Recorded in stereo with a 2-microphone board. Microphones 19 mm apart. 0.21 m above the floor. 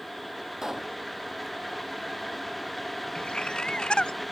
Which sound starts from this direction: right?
A pop, at 0.6 s.